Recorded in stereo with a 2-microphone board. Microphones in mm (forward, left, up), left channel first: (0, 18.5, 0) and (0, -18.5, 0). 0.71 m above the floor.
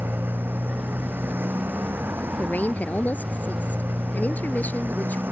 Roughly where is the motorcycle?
Right.